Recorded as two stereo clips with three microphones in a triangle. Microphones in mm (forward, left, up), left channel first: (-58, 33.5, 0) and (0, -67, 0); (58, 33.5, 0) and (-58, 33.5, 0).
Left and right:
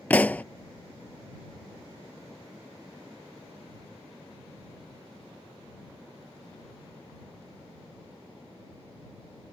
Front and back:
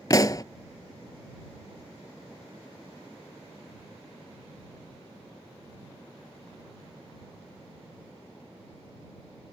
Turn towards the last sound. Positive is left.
turn(degrees=50)